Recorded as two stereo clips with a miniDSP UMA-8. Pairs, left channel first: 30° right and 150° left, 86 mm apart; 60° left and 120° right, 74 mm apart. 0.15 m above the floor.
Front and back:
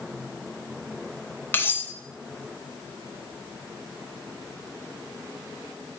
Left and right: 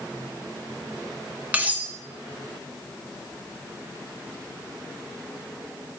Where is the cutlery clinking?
70° right, 0.8 m.